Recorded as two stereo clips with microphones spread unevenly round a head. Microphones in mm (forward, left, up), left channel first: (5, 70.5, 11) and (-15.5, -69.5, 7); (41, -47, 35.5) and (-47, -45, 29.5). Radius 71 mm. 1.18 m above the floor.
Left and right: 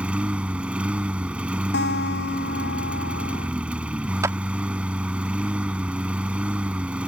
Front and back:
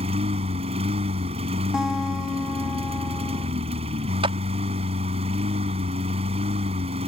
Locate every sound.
0.0 s a lawn mower: straight behind
1.7 s a guitar: 95° left
4.2 s a clap: 170° right